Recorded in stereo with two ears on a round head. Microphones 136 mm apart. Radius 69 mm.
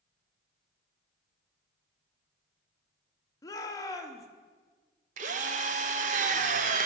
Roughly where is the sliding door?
I don't hear a sliding door.